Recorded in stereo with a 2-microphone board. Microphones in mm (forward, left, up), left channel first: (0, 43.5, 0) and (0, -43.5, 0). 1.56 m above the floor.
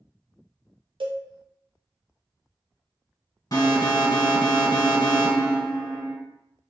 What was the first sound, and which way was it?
A cowbell, 75° right (ahead or behind).